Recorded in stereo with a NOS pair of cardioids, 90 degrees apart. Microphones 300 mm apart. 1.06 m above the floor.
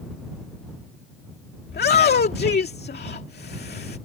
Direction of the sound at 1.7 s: 35° left.